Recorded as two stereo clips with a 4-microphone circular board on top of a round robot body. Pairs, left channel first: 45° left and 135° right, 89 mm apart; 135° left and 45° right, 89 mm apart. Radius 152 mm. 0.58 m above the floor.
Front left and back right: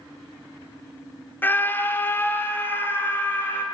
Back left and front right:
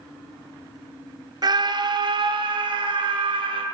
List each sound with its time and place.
1.4 s a scream: 20° right, 1.8 m